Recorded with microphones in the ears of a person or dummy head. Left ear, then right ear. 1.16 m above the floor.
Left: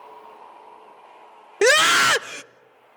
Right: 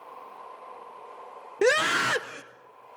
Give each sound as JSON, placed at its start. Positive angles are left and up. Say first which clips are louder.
{"t": 1.6, "sound": "a scream", "louder": "left 7 dB", "side_deg": 30, "distance_m": 0.5}